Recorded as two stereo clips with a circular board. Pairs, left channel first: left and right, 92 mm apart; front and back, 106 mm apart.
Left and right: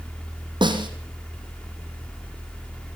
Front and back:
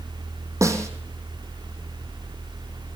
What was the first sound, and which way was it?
A snare drum, 120° right.